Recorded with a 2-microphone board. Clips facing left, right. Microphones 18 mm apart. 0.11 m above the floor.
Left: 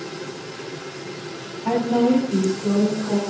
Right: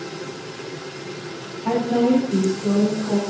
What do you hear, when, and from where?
1.6 s a woman speaking: 10° left (ahead or behind), 1.9 m; by 3.2 s 10° right (ahead or behind), 1.4 m